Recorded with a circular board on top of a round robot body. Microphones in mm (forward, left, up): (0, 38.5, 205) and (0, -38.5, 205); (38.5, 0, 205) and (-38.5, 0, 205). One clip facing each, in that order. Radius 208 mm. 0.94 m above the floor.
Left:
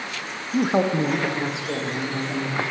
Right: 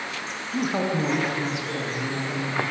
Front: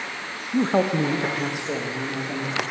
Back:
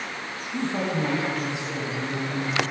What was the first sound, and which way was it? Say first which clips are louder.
A man speaking: left 5 dB, front 6 dB; 30° left.